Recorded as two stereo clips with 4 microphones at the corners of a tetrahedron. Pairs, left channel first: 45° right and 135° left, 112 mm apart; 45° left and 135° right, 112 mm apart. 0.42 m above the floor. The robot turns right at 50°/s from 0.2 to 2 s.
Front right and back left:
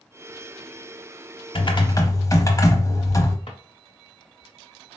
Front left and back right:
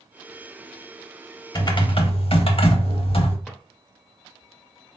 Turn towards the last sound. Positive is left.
turn(degrees=-40)